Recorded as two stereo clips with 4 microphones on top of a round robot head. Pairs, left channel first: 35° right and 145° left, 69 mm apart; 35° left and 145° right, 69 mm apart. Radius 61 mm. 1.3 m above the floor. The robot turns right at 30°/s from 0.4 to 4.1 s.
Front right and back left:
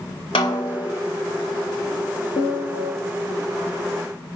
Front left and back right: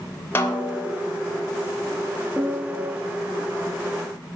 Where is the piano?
70° right, 1.2 m; by 2.9 s 50° right, 1.2 m.